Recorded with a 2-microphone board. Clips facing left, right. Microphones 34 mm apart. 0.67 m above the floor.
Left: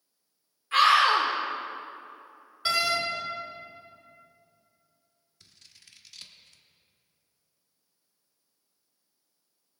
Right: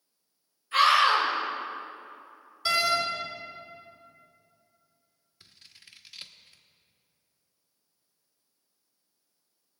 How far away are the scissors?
About 0.8 m.